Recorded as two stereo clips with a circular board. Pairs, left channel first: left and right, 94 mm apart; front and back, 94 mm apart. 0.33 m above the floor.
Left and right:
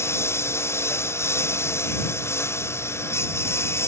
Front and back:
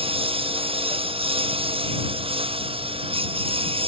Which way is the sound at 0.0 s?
155° left.